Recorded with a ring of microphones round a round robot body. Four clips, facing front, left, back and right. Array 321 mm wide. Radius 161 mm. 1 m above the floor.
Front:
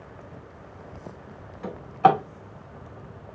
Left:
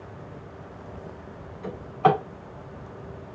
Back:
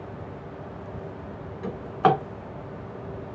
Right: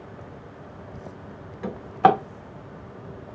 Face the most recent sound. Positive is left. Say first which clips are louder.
# right 3 dB, front 2 dB
turn(degrees=-90)